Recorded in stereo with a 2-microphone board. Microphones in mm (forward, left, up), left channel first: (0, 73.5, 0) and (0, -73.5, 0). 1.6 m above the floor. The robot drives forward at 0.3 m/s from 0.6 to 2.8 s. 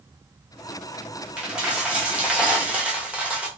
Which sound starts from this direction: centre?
A dropped coin, at 1.4 s.